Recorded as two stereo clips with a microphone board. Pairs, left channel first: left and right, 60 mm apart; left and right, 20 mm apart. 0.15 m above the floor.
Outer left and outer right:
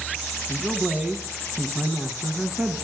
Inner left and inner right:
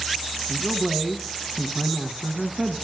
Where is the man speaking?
15° right (ahead or behind), 1.1 m.